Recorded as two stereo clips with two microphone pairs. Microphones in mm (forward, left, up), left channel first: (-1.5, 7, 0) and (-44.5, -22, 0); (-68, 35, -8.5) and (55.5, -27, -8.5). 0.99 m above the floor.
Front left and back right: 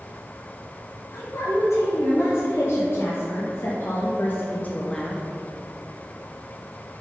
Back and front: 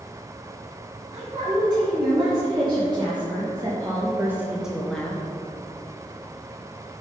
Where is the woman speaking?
20° left, 2.5 m; by 5.2 s 110° left, 0.7 m.